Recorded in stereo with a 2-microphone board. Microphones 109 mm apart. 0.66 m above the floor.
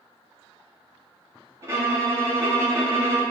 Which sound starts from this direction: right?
A violin, at 1.6 s.